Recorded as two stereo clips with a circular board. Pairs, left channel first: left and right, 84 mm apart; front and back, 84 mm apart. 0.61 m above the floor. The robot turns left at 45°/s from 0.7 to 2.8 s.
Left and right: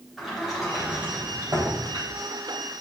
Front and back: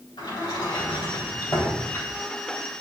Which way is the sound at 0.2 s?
5° right.